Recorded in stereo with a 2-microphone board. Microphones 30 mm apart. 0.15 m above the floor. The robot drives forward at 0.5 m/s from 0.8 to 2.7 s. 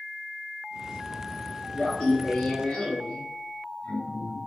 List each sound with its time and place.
1.8 s laughter: 55° left (ahead or behind), 2.5 m